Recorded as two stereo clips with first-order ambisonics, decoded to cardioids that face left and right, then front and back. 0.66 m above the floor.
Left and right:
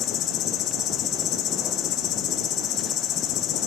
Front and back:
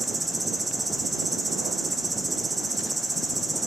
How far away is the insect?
About 1.0 m.